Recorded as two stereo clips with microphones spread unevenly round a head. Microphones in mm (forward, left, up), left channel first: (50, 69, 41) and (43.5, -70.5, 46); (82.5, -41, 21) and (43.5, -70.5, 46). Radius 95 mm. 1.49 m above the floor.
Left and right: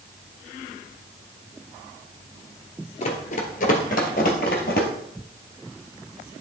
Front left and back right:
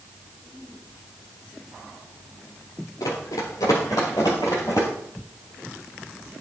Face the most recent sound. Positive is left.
turn(degrees=120)